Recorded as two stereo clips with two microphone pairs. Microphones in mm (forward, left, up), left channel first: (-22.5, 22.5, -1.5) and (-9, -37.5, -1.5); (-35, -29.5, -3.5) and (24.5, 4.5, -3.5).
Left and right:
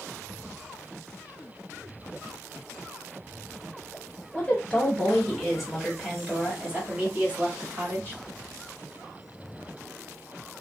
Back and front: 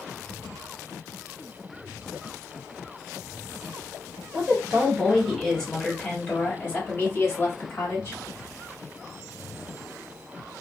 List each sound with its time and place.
4.3 s a woman speaking: 80° left, 1.5 m; by 8.2 s 125° right, 2 m